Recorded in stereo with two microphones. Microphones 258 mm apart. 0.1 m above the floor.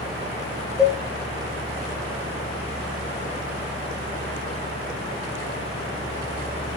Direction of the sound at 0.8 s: Centre (ahead or behind).